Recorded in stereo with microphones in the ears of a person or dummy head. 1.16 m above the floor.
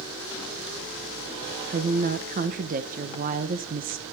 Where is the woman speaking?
35° right (ahead or behind), 0.8 m.